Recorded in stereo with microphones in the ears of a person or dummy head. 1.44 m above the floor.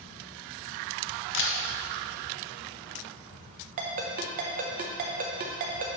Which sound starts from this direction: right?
A ringtone, at 3.8 s.